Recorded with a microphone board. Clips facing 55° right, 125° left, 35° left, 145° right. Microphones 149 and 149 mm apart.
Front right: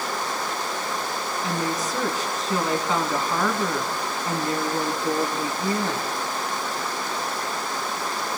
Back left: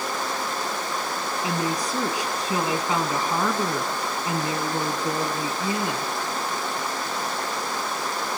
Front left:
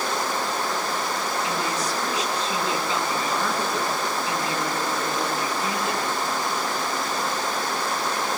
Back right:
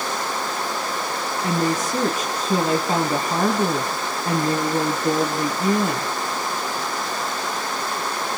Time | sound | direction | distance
1.4 | a woman speaking | 160° right | 2.5 m